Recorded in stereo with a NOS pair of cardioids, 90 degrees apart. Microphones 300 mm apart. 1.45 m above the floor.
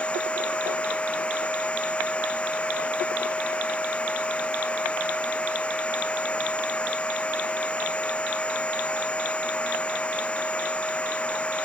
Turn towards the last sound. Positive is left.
turn(degrees=5)